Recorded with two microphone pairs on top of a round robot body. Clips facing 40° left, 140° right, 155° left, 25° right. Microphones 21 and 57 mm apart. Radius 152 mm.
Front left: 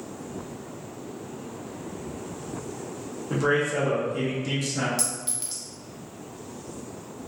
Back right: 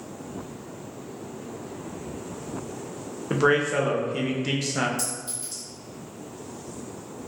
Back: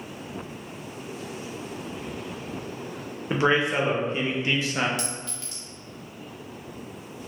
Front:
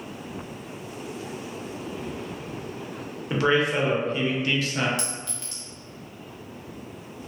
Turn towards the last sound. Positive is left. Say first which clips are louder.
# front left 1 dB, even
turn(degrees=60)